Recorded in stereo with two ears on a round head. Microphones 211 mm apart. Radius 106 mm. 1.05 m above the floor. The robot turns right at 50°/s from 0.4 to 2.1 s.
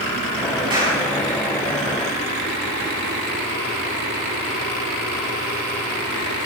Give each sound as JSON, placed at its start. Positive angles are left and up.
{"t": 0.7, "sound": "a clap", "side_deg": -20, "distance_m": 7.0}